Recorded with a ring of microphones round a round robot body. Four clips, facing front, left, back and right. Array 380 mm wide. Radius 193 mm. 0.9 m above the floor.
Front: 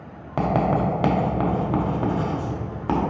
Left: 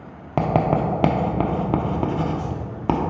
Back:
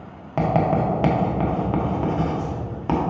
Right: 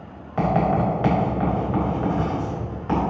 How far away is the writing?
About 1.1 m.